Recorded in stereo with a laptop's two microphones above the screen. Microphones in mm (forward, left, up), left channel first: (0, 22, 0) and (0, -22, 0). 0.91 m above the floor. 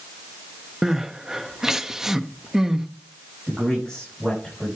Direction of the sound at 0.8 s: 10° right (ahead or behind).